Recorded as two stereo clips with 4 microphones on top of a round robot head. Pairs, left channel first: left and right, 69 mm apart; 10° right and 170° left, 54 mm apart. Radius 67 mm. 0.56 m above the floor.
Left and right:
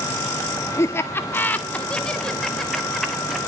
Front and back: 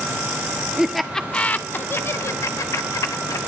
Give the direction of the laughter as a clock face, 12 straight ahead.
9 o'clock.